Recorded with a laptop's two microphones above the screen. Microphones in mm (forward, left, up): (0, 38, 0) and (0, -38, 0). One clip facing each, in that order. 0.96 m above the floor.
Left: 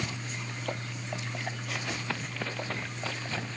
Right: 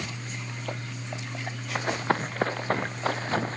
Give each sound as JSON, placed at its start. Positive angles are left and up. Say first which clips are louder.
{"t": 1.8, "sound": "running footsteps", "louder": "right 13 dB", "side_deg": -40}